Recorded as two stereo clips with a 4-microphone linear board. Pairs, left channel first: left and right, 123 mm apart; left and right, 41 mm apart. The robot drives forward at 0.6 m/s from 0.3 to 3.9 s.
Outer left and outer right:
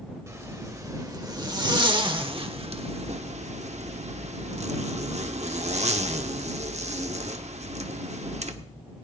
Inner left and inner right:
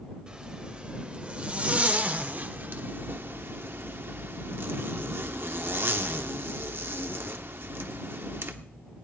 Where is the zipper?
25° right (ahead or behind), 2 m; by 8.6 s 65° right (ahead or behind), 1.0 m.